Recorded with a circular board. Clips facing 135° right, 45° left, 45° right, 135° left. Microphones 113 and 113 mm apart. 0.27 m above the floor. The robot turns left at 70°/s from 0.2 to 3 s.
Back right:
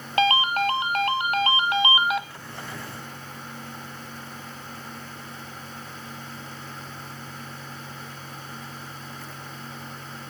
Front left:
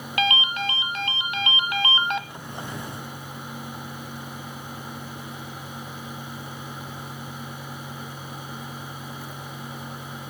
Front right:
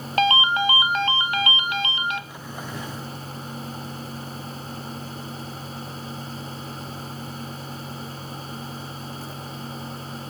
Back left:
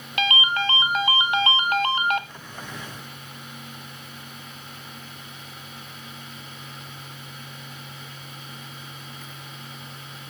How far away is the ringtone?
About 0.8 m.